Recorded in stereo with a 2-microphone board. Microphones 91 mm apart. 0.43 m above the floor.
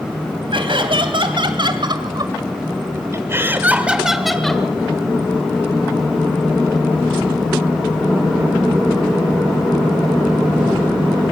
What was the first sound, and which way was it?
Laughter, 65° right (ahead or behind).